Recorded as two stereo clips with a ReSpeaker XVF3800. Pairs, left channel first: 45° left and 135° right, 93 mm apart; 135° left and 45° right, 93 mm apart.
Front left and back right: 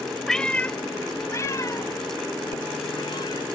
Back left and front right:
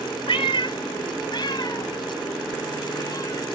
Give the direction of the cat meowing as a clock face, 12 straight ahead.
8 o'clock.